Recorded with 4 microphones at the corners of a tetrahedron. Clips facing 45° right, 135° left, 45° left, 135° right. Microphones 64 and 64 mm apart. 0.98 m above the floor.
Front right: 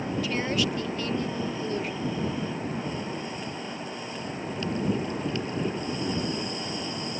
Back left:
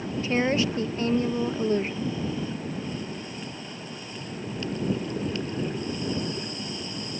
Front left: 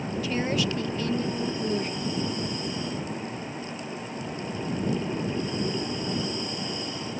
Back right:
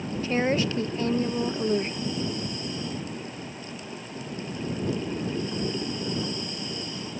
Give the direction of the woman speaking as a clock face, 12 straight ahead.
6 o'clock.